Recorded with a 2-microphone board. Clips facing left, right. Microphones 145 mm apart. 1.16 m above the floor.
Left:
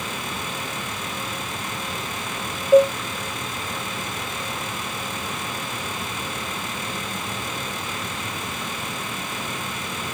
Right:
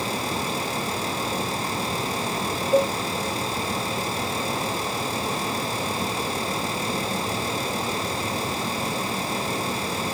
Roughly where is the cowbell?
Left.